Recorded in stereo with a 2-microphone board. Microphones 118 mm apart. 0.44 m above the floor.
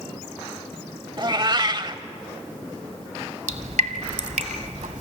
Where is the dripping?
80° right, 1.3 m.